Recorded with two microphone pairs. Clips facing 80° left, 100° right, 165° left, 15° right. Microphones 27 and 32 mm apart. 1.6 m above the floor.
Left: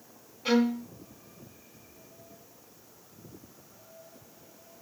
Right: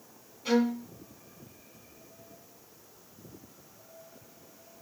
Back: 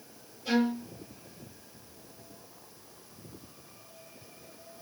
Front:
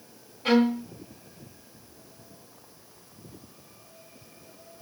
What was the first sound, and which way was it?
A violin, 20° left.